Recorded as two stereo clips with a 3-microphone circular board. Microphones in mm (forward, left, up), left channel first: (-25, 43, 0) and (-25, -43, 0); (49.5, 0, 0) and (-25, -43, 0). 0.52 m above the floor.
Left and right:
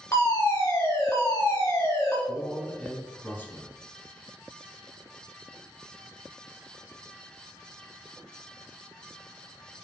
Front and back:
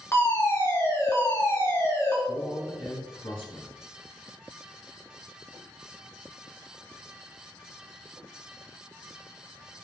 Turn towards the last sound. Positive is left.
turn(degrees=25)